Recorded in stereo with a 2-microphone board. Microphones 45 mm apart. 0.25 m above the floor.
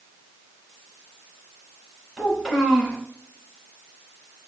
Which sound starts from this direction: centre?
A child speaking, at 2.2 s.